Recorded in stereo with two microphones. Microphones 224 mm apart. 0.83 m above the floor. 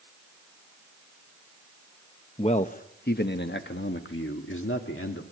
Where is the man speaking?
25° left (ahead or behind), 0.8 m; by 5.2 s 65° left (ahead or behind), 2 m.